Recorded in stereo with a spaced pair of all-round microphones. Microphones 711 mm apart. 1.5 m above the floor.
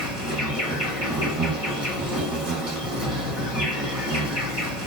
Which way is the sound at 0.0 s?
35° right (ahead or behind).